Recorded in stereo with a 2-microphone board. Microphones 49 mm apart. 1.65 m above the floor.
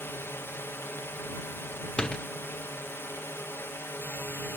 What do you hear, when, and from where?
0.0 s a drone: 55° left (ahead or behind)
2.0 s a door slam: 15° left (ahead or behind)